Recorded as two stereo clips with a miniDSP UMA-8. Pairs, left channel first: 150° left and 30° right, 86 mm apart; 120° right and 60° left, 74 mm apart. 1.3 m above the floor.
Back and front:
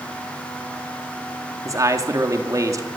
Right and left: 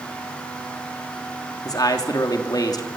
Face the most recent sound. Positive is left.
turn(degrees=-80)